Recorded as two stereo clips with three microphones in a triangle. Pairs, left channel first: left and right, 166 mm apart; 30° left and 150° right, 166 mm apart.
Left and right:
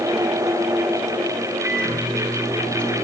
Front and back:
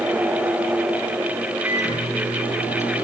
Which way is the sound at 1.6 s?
15° right.